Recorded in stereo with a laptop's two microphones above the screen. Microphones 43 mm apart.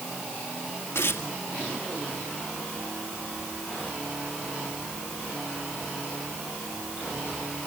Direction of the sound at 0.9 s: 80° left.